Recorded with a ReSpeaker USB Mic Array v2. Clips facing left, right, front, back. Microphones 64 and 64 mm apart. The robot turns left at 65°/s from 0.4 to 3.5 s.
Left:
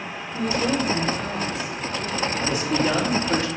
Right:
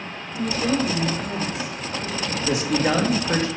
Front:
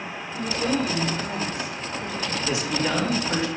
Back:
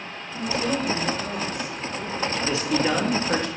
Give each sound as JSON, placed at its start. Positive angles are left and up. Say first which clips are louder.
{"t": 0.3, "sound": "a woman speaking", "louder": "even, even", "azimuth_deg": 105, "distance_m": 4.5}
{"t": 2.3, "sound": "a man speaking", "louder": "right 4 dB, back 2 dB", "azimuth_deg": -60, "distance_m": 2.0}